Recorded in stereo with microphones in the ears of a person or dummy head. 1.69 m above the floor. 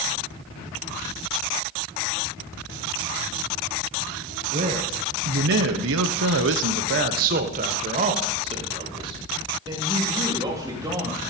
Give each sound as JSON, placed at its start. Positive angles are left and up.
{"t": 4.5, "sound": "a man speaking", "side_deg": -35, "distance_m": 1.2}